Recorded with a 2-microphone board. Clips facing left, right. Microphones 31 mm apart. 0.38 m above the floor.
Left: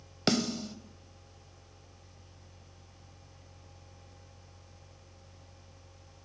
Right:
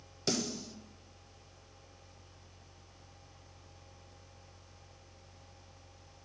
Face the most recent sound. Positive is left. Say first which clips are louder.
# left 6 dB
turn(degrees=50)  # may be behind; listen again after turning